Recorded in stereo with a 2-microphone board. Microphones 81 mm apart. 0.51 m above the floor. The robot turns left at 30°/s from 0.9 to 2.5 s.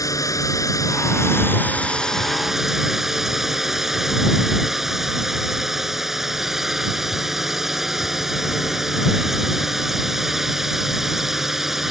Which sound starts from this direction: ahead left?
A drone, at 0.0 s.